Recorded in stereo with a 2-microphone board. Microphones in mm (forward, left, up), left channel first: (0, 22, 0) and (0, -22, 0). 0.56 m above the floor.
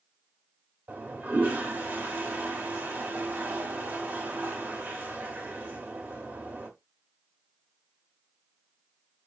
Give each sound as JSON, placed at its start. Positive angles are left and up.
{"t": 0.9, "sound": "a toilet flushing", "side_deg": -35, "distance_m": 1.8}